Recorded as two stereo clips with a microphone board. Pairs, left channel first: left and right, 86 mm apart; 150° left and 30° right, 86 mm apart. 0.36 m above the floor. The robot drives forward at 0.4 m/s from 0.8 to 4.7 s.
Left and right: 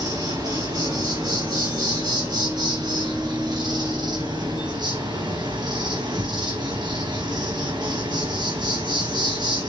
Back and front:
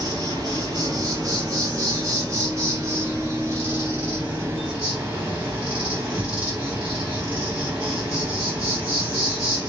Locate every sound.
0.0 s an insect: 70° right, 3.5 m; by 9.7 s 95° right, 3.5 m